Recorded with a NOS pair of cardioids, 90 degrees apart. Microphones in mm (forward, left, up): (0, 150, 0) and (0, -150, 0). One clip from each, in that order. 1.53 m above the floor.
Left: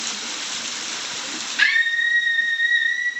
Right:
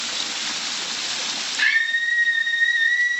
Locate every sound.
1.6 s a scream: 35° left, 2.0 m; by 3.2 s 30° right, 1.2 m